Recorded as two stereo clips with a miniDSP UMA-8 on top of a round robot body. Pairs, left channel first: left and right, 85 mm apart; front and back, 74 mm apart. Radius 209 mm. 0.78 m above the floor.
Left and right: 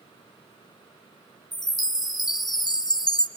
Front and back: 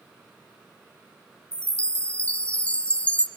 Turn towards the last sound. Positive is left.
turn(degrees=70)